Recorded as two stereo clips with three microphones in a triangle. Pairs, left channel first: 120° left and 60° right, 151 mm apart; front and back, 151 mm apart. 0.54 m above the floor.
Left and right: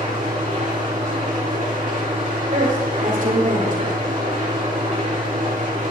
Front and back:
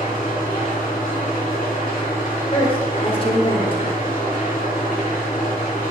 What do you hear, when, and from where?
0.0 s an engine running: 25° right, 5.5 m
2.5 s a woman speaking: 50° right, 2 m